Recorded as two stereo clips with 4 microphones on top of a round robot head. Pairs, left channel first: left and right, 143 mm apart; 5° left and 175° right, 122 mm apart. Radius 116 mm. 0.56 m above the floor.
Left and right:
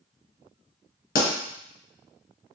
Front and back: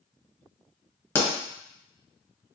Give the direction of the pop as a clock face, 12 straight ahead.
9 o'clock.